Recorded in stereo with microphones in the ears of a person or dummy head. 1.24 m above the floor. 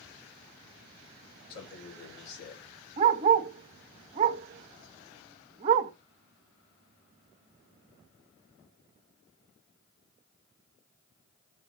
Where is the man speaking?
60° left (ahead or behind), 5 m.